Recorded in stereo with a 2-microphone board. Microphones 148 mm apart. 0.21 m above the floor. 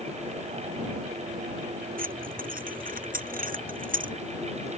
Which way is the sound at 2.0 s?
70° right (ahead or behind).